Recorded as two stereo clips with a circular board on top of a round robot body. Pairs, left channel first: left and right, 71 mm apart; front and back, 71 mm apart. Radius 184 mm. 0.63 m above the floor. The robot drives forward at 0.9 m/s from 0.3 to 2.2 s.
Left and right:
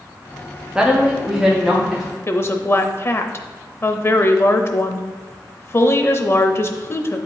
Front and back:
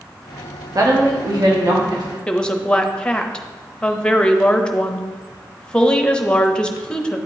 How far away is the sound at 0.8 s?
About 1.2 m.